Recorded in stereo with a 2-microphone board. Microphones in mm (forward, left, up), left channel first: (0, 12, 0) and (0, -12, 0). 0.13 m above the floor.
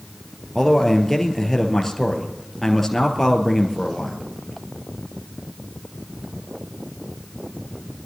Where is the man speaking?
10° left (ahead or behind), 2.5 m.